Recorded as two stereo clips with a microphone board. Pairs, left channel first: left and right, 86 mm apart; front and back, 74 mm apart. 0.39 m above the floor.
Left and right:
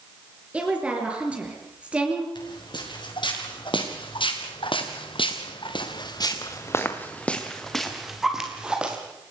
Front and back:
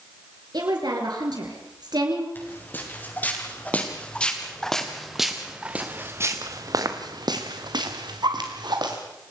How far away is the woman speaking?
About 5.5 m.